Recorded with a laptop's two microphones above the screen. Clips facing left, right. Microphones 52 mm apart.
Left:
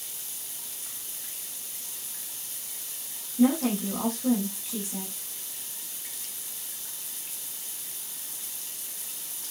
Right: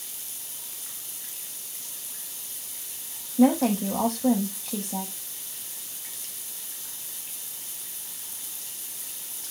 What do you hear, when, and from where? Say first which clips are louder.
3.4 s a woman speaking: right 3 dB; 85° right, 8 m